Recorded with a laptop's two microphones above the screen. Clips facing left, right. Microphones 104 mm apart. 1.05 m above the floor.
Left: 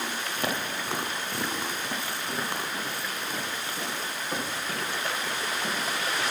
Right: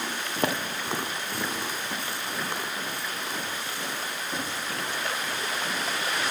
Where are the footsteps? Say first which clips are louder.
Right 4 dB; 40° right (ahead or behind), 1.4 m; by 6.2 s 50° left (ahead or behind), 6 m.